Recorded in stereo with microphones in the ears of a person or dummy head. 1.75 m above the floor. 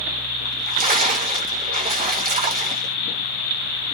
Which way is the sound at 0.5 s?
40° right (ahead or behind).